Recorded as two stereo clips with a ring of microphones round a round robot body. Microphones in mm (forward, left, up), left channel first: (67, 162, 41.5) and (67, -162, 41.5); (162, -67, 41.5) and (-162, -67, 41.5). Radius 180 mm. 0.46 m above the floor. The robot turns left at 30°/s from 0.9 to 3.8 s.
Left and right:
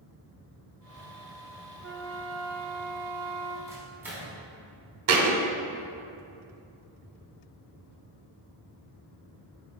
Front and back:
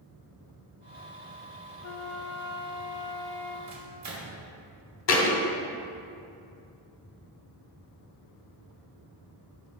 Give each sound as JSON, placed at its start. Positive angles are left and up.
{"t": 1.8, "sound": "a flute", "azimuth_deg": -35, "distance_m": 0.6}
{"t": 3.7, "sound": "a microwave", "azimuth_deg": -170, "distance_m": 1.4}
{"t": 5.1, "sound": "a thud", "azimuth_deg": -45, "distance_m": 1.1}